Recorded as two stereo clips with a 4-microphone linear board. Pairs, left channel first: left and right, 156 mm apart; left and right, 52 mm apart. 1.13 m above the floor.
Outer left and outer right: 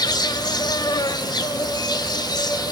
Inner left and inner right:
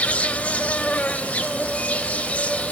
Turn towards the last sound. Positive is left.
turn(degrees=25)  # may be behind; listen again after turning